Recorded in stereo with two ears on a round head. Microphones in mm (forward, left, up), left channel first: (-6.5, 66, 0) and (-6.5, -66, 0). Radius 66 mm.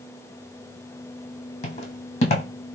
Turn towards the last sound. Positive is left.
turn(degrees=50)  # may be behind; listen again after turning